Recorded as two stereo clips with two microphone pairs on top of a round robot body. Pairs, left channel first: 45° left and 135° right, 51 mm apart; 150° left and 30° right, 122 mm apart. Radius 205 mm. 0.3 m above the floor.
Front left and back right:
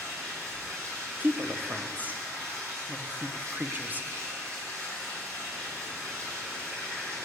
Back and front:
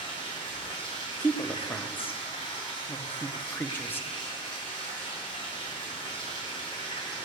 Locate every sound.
0.0 s running water: 160° right, 3.5 m
1.2 s a woman speaking: 155° right, 1.1 m